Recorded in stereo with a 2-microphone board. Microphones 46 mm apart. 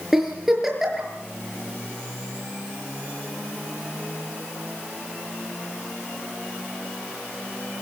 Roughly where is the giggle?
Centre.